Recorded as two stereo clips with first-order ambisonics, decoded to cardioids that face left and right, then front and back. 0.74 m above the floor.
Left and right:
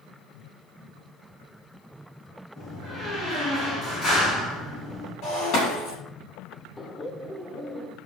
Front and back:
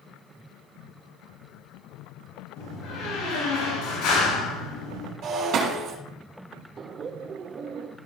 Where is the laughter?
150° left, 0.8 m.